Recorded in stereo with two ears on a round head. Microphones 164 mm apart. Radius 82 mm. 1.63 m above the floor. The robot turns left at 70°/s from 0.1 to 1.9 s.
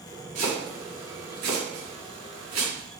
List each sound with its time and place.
0.3 s chopping: 35° right (ahead or behind), 1.9 m